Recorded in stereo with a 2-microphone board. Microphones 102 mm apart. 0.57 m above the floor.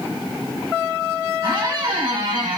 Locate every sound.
1.4 s a squeak: 50° right (ahead or behind), 1.4 m